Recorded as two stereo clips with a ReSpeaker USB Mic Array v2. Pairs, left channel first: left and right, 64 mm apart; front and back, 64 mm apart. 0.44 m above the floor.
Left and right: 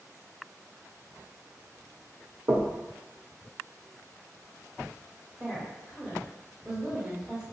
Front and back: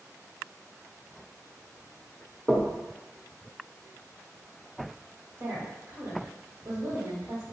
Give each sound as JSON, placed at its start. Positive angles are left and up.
{"t": 2.5, "sound": "knocking", "azimuth_deg": -95, "distance_m": 0.8}
{"t": 5.4, "sound": "a woman speaking", "azimuth_deg": -165, "distance_m": 1.6}